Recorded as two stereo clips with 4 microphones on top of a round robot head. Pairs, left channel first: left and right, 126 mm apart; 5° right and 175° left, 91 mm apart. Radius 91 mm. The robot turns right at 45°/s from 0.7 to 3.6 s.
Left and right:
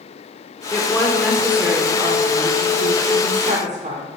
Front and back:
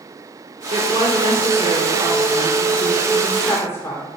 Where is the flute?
I don't hear a flute.